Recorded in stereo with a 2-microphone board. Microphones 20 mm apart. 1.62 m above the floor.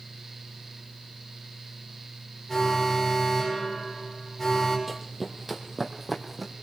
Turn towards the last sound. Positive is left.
turn(degrees=-5)  # may be behind; listen again after turning